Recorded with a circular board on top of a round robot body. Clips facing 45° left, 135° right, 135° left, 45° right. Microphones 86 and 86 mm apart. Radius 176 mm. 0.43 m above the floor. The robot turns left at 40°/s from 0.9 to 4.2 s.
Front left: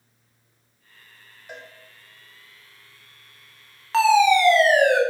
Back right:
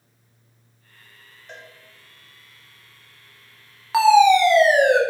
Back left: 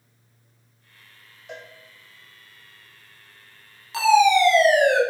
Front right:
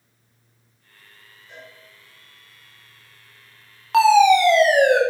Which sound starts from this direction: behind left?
A cowbell, at 1.5 s.